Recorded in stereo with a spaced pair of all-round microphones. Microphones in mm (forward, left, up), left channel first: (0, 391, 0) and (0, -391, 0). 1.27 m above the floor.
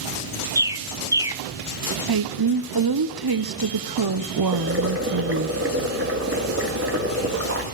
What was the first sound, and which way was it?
A bird, 5° right (ahead or behind).